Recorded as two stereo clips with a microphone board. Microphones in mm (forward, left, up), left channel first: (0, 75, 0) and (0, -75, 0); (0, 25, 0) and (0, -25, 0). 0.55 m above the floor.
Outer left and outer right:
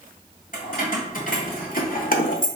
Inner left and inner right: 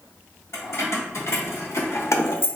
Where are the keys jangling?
65° left (ahead or behind), 1.7 m; by 2.5 s 60° left (ahead or behind), 0.7 m.